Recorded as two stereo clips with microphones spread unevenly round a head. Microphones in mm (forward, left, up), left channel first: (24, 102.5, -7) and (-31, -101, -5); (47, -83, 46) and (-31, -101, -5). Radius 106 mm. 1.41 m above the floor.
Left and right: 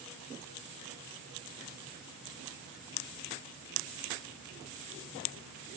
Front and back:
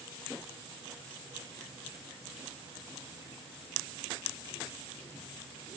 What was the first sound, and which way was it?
Only background noise.